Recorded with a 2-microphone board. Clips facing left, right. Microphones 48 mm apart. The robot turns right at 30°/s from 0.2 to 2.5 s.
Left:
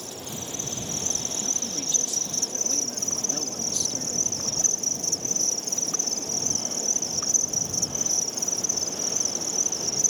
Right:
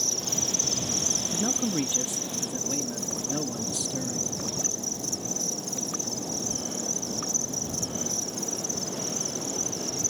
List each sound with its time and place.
0.0 s an insect: 15° left; by 10.1 s 85° left
1.3 s a man speaking: 45° right; by 4.3 s 10° right